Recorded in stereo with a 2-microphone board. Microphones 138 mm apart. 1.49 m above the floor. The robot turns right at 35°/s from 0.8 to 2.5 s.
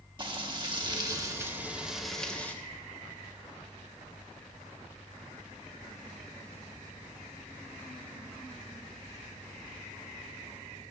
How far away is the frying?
About 1.3 m.